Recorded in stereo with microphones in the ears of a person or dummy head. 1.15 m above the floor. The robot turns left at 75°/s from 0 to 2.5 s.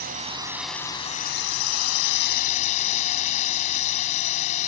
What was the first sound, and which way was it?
A drone, 135° right.